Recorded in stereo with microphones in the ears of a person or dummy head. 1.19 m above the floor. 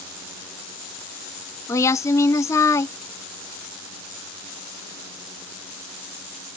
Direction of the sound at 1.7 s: 15° left (ahead or behind).